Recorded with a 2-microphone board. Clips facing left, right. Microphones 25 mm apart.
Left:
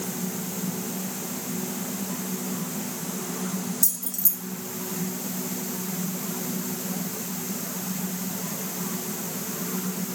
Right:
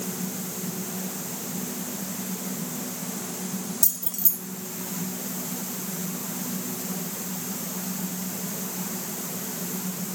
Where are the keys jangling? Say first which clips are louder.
Even; 15° right (ahead or behind), 0.7 m.